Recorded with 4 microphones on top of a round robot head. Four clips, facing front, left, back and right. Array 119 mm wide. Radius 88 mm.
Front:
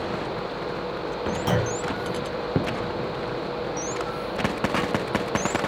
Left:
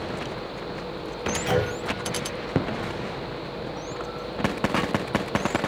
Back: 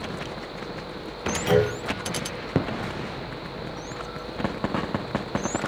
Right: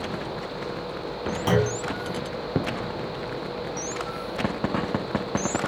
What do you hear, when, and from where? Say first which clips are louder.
1.5 s a clunk: right 2 dB, back 6 dB; 65° right, 5.5 m